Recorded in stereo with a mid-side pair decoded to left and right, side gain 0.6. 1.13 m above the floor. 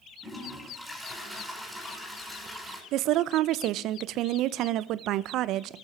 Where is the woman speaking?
60° right, 0.6 m.